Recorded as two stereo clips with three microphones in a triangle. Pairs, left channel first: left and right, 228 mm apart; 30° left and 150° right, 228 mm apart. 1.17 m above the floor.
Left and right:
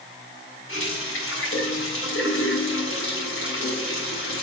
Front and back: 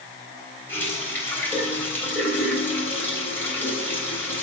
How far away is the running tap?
About 3.5 m.